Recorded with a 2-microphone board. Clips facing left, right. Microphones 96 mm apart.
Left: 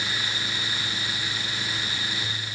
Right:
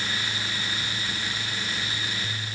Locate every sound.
Only background noise.